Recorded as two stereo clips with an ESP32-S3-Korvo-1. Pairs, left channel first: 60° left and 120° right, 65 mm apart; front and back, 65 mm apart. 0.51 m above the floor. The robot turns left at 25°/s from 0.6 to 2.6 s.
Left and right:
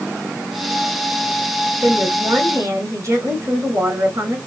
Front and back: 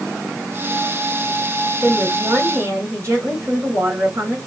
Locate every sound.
1.8 s a woman speaking: 120° right, 3.5 m; by 4.4 s 140° right, 3.5 m